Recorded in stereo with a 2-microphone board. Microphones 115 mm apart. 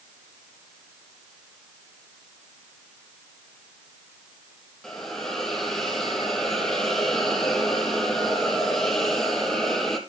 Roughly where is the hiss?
Centre.